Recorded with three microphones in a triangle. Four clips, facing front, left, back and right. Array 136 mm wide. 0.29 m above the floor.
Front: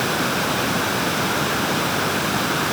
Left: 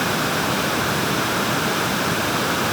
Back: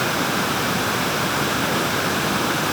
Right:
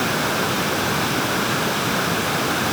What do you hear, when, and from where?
Only background noise.